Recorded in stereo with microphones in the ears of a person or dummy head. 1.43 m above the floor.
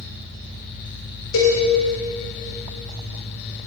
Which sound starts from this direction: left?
A cowbell, at 1.3 s.